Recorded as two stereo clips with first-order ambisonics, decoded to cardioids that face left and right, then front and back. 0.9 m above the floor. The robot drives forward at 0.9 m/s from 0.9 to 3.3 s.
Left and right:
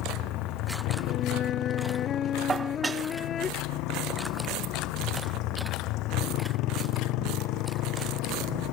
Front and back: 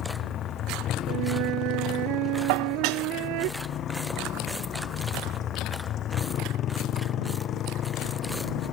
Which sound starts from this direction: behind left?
A flute, at 1.1 s.